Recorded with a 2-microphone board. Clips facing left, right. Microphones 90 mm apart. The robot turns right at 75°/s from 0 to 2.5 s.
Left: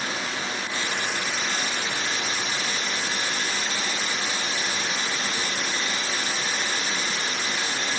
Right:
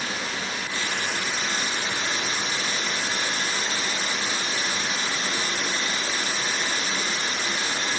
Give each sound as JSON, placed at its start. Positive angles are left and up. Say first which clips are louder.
{"t": 0.0, "sound": "running water", "louder": "left 1 dB", "azimuth_deg": 80, "distance_m": 1.0}